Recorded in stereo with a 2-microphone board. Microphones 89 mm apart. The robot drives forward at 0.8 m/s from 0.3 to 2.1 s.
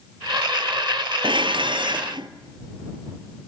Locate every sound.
1.2 s dishes clattering: 65° right (ahead or behind), 2 m; by 2.3 s 60° right (ahead or behind), 2.5 m